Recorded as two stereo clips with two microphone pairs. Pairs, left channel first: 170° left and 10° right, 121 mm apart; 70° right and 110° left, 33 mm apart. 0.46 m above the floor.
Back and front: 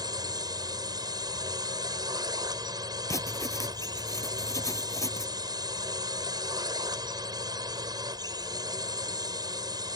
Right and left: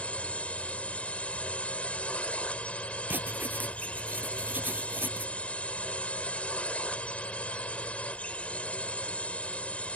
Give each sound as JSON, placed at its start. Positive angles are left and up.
{"t": 0.0, "sound": "a drone", "azimuth_deg": -50}
{"t": 3.1, "sound": "writing", "azimuth_deg": 110}